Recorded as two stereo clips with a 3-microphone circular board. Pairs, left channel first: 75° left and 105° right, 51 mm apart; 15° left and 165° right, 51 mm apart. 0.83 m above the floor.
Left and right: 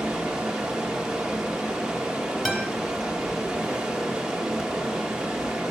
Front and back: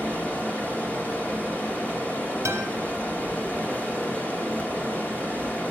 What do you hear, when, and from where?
0.0 s running water: 35° right, 1.0 m
2.5 s a guitar: 165° left, 0.7 m